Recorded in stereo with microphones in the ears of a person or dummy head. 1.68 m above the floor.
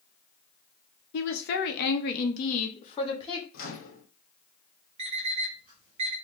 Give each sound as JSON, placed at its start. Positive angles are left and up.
{"t": 1.1, "sound": "a woman speaking", "side_deg": 70, "distance_m": 0.8}
{"t": 3.5, "sound": "a microwave", "side_deg": 60, "distance_m": 1.0}
{"t": 5.0, "sound": "an alarm clock", "side_deg": -35, "distance_m": 1.7}